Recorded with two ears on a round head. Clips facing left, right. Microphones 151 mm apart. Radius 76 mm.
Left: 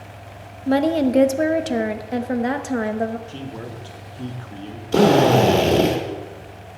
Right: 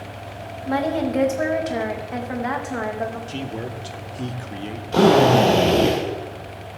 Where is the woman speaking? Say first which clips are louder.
Left 4 dB; 35° left (ahead or behind), 0.5 m.